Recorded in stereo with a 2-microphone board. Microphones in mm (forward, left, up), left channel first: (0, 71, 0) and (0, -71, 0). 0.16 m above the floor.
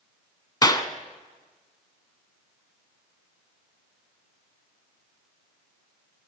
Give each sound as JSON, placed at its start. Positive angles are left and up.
{"t": 0.6, "sound": "a clap", "side_deg": 25, "distance_m": 0.9}